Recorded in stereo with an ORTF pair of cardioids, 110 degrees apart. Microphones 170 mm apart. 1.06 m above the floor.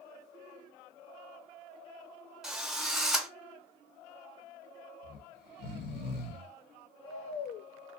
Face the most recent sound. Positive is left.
turn(degrees=70)